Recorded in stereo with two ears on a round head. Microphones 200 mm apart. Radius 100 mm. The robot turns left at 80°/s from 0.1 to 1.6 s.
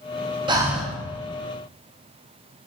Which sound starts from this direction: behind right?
Breathing, at 0.5 s.